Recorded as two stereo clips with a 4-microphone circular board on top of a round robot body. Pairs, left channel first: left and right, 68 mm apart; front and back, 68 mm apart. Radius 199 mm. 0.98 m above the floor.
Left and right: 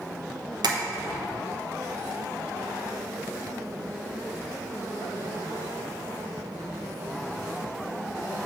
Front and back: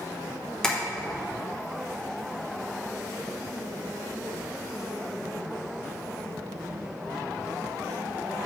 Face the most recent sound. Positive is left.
turn(degrees=-80)